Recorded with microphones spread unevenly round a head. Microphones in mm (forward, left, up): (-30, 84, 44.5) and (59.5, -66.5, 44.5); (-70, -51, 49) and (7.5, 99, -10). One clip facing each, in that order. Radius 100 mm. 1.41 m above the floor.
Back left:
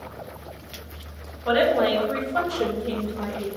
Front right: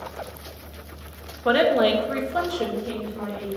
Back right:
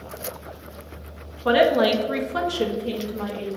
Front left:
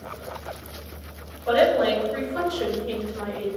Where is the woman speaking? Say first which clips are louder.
Front right 1 dB, back right 1 dB; 95° right, 1.4 m; by 3.5 s straight behind, 1.7 m.